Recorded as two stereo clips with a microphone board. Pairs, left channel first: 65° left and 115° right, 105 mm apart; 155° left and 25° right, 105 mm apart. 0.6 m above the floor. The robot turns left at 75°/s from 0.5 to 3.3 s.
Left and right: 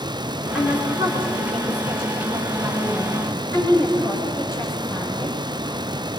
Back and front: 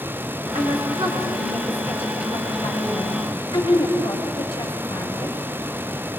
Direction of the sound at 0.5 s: 25° right.